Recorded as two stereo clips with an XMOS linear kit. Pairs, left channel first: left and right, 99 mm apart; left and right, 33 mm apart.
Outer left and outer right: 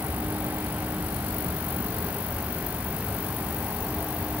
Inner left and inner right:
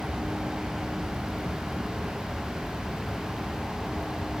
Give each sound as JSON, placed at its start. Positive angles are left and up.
{"t": 0.0, "sound": "an aircraft", "side_deg": -35}